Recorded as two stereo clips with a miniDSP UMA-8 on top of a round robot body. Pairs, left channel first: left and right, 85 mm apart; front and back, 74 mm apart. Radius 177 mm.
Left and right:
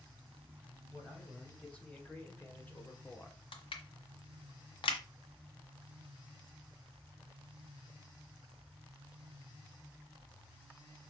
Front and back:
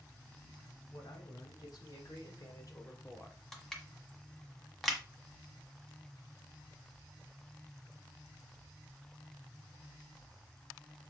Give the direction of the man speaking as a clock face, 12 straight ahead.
12 o'clock.